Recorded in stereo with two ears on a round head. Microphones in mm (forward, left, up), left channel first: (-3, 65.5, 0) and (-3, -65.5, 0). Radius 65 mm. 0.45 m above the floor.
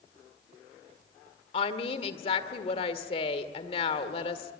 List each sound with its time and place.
1.5 s a woman speaking: 40° left (ahead or behind), 1.7 m